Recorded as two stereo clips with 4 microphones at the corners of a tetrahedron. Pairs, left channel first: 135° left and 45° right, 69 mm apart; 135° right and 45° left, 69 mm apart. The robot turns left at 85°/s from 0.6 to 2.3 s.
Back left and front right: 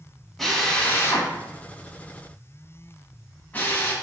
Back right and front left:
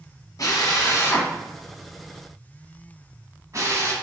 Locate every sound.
0.4 s a drill: 140° right, 1.1 m; by 3.9 s 75° left, 1.1 m